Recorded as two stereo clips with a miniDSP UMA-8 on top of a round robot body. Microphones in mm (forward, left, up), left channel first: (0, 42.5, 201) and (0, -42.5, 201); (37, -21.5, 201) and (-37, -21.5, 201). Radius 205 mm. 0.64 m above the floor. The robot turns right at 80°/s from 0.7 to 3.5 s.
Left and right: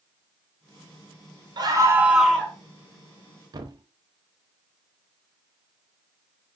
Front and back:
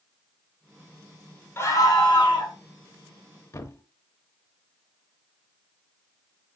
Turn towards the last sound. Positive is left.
turn(degrees=-45)